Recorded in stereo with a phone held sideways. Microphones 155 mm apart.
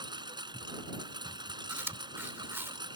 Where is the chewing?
15° right (ahead or behind).